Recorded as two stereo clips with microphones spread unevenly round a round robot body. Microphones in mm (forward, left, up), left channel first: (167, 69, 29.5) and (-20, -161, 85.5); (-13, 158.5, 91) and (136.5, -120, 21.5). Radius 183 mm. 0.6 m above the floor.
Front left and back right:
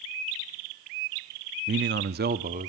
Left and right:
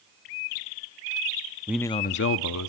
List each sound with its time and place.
1.7 s a man speaking: 95° right, 0.7 m; by 2.7 s 160° left, 1.3 m